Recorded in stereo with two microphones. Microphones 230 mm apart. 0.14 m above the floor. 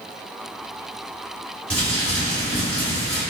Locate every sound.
1.7 s crumpling: 5° left (ahead or behind), 1.6 m